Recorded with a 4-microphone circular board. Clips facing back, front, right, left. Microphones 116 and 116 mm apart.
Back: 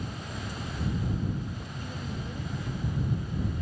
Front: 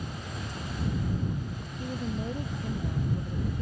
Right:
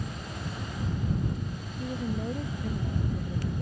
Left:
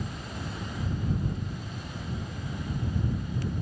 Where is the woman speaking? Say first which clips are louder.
Front 7 dB, right 11 dB; 60° right; by 3.6 s 55° right.